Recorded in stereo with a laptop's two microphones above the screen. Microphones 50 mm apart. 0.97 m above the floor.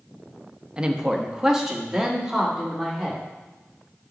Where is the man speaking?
20° right (ahead or behind), 0.8 m; by 3.2 s 5° right (ahead or behind), 2.5 m.